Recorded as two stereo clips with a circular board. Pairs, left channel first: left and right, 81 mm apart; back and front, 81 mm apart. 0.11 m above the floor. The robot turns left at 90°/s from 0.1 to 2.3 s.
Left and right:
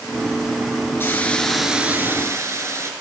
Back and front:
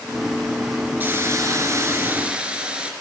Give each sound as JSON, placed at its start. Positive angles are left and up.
{"t": 1.0, "sound": "a hiss", "azimuth_deg": 50, "distance_m": 2.0}